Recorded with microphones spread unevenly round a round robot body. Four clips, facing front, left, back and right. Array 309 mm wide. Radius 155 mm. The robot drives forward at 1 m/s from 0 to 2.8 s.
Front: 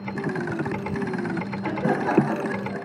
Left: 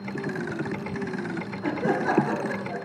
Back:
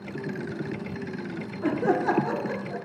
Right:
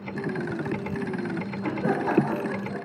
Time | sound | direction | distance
1.6 | laughter | 170° left | 1.8 m